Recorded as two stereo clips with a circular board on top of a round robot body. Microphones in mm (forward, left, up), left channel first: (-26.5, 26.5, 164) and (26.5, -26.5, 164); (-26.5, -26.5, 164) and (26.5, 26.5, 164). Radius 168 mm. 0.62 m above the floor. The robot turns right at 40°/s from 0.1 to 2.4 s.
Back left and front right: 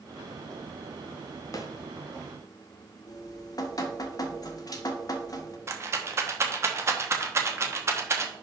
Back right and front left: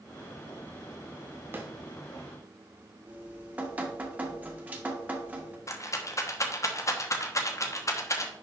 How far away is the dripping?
About 1.3 m.